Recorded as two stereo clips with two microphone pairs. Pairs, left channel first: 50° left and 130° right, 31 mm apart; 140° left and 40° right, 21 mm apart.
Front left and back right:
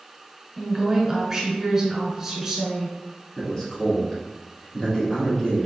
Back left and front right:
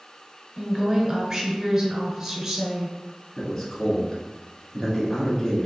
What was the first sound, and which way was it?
A woman speaking, 80° right.